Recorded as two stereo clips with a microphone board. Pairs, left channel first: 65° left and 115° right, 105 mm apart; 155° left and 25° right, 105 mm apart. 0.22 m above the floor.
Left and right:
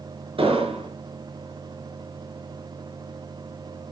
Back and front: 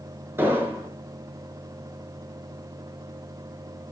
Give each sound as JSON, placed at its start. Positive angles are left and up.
{"t": 0.4, "sound": "an explosion", "azimuth_deg": -90, "distance_m": 3.5}